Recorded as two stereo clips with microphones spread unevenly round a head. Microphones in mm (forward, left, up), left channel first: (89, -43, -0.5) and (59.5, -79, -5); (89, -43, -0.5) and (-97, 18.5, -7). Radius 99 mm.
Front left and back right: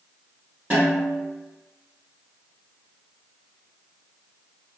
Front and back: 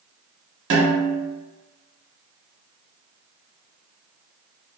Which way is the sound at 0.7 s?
165° left.